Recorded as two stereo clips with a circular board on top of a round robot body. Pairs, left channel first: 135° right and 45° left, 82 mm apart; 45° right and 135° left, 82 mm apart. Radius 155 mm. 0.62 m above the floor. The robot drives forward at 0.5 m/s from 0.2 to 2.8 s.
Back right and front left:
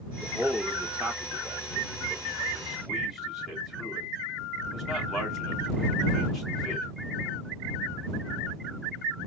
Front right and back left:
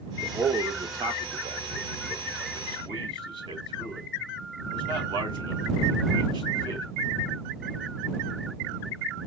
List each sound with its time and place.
0.2 s a man speaking: 115° left, 2.5 m; by 6.8 s 135° left, 3.5 m